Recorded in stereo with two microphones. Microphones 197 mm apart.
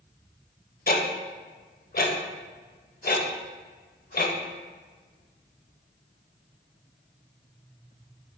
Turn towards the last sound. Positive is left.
turn(degrees=50)  # may be behind; listen again after turning